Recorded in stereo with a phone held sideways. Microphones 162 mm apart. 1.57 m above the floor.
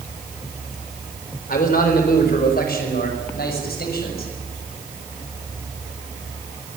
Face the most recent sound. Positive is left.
turn(degrees=75)  # may be behind; listen again after turning